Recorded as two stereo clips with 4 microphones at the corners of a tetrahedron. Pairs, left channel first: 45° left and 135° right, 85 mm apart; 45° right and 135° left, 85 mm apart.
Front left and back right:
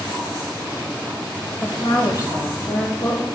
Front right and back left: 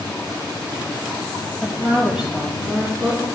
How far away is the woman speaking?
About 1.1 m.